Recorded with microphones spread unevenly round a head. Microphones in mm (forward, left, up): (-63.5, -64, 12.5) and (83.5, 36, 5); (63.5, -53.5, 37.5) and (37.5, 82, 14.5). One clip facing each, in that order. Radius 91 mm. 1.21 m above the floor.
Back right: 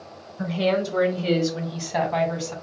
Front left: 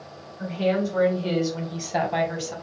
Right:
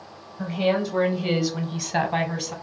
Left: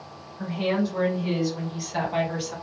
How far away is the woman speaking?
About 1.0 m.